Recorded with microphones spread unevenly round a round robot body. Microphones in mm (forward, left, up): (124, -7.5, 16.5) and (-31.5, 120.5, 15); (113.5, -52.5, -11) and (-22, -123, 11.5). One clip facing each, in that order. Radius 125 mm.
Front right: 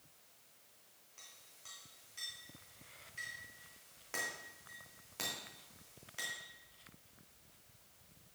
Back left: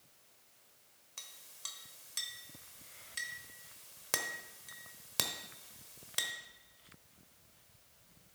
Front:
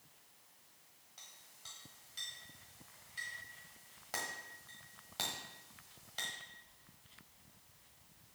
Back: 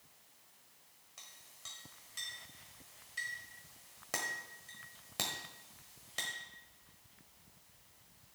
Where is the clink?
145° left, 1.1 m.